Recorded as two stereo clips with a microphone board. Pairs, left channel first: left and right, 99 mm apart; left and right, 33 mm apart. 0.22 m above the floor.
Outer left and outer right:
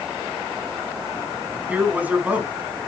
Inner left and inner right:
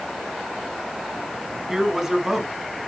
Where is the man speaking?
15° right (ahead or behind), 1.7 m.